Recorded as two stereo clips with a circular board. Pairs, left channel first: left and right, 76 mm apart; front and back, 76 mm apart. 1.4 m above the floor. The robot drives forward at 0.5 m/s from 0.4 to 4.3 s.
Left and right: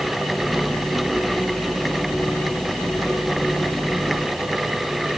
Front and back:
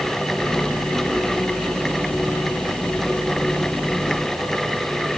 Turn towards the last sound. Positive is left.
No sound to turn to.